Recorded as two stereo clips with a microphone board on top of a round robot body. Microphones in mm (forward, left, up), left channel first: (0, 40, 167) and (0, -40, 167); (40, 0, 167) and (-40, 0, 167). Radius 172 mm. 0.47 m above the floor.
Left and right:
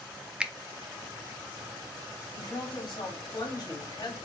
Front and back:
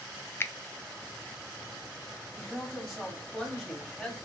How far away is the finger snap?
About 0.6 m.